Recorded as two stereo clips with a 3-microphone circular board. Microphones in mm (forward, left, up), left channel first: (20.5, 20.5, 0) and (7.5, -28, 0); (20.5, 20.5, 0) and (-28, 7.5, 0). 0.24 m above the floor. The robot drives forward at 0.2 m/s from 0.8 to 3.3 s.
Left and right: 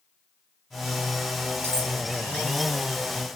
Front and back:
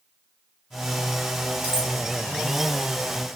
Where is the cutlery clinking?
105° right, 1.4 m; by 1.9 s 110° right, 1.4 m.